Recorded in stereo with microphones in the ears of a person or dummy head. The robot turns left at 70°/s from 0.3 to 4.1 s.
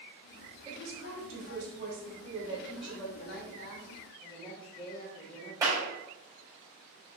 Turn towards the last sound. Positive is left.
turn(degrees=-15)  # may be behind; listen again after turning